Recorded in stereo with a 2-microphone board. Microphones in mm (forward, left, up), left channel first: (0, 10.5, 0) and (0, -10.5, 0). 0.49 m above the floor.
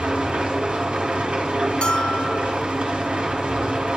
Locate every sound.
0.0 s an engine running: 60° right (ahead or behind), 1.5 m
1.8 s a bell: 50° left (ahead or behind), 0.7 m